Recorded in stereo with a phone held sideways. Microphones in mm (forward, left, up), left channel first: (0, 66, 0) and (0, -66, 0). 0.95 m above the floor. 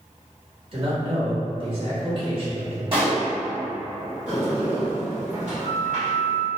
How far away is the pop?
About 1.6 m.